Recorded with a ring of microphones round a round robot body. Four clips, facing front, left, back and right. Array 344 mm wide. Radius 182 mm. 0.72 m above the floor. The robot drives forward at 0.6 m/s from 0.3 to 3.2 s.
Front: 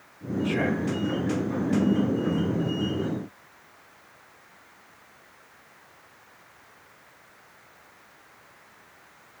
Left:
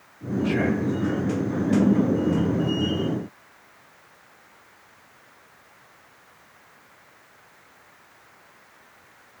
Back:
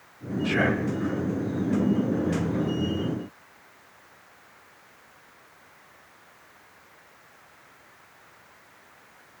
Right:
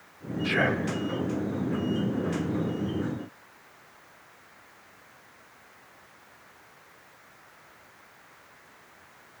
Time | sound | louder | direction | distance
0.4 | whispering | left 3 dB, back 2 dB | 110° right | 0.6 m